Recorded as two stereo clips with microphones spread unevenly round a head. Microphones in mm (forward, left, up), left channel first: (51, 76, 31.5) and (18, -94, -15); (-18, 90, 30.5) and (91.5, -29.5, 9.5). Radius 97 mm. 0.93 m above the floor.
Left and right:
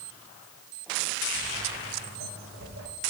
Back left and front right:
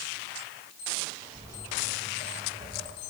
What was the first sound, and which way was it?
Footsteps, 130° right.